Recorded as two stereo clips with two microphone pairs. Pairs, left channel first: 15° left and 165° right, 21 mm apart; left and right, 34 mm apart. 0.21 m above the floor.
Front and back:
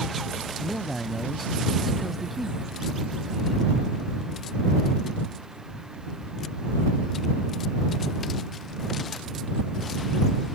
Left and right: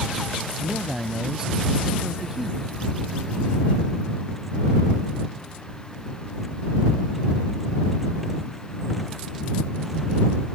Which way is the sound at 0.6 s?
75° right.